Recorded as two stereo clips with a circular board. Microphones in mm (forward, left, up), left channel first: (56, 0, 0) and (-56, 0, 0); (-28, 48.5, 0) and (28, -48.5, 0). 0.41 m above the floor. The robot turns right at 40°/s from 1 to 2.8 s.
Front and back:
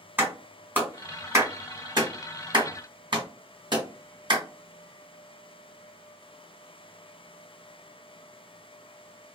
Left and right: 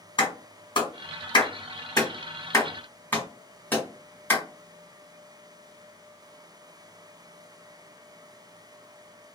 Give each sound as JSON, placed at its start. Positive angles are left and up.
{"t": 0.2, "sound": "a clap", "azimuth_deg": 115, "distance_m": 1.4}